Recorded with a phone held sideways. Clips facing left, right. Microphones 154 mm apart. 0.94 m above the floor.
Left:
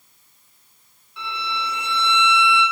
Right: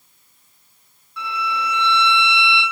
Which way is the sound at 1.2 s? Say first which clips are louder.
Right 4 dB; 25° left (ahead or behind).